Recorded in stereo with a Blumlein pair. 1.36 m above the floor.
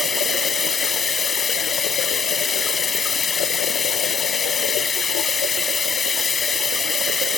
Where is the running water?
15° left.